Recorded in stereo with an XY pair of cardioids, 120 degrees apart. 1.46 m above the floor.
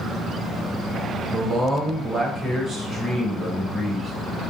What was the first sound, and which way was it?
A man speaking, 30° right.